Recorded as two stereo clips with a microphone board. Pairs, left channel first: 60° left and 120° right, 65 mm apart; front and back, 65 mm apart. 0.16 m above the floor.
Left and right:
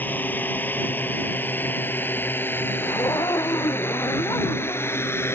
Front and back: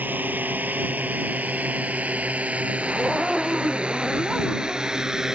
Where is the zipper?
90° left.